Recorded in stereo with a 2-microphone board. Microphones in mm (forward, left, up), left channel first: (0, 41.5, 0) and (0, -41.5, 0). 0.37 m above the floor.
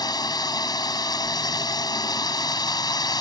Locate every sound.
0.0 s a drone: 55° left (ahead or behind)